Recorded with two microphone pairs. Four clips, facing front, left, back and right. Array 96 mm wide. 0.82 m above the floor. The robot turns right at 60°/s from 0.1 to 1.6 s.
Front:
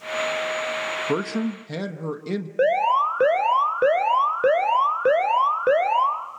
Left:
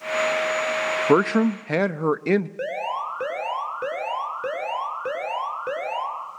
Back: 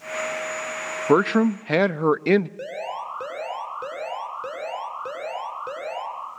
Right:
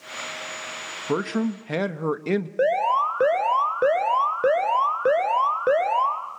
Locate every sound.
1.1 s a man speaking: 130° left, 0.8 m; by 2.5 s 165° left, 0.8 m
2.6 s an alarm: 35° right, 3 m